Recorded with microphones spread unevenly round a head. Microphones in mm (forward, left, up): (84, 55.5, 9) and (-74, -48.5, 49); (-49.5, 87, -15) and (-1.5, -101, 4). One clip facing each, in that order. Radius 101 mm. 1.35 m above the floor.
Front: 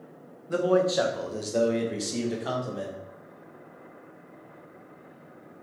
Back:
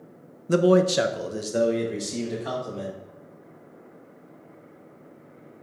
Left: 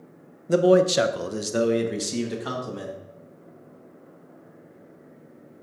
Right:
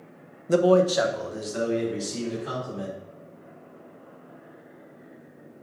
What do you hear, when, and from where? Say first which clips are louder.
0.5 s a man speaking: back 5 dB, left 1 dB; 160° right, 0.6 m; by 2.9 s 115° left, 1.8 m